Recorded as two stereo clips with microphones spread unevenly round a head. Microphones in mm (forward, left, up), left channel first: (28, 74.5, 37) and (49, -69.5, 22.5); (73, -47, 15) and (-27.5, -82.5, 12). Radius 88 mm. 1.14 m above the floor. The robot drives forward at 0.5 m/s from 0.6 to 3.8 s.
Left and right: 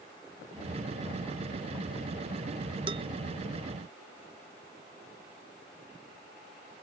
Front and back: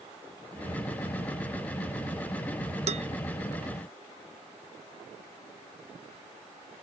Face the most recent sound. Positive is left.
turn(degrees=-145)